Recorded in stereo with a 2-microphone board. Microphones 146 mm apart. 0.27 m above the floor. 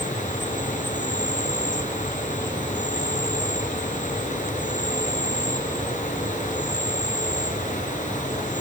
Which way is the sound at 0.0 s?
60° left (ahead or behind).